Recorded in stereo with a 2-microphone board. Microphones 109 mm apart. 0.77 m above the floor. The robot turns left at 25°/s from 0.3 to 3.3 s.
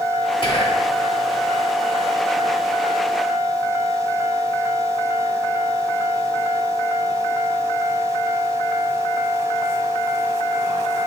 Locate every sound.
0.4 s whispering: 45° left (ahead or behind), 1.1 m; by 0.9 s 55° left (ahead or behind), 1.1 m